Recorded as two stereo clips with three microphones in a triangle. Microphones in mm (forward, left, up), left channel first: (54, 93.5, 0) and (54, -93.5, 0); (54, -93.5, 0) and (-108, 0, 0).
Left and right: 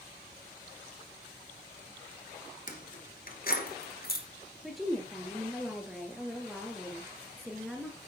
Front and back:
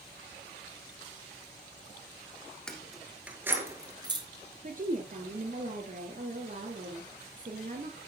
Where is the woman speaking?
Straight behind, 2.5 m.